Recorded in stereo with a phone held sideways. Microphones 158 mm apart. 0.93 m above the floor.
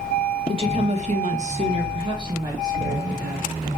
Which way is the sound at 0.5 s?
35° right (ahead or behind).